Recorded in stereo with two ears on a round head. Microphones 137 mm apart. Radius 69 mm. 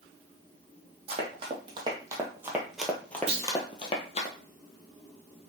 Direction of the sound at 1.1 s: 40° right (ahead or behind).